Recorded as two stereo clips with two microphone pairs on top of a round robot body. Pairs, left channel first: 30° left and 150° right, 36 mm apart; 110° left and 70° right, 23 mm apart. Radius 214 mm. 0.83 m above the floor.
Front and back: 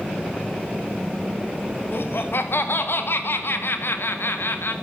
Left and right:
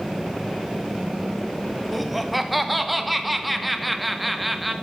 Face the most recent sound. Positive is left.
turn(degrees=20)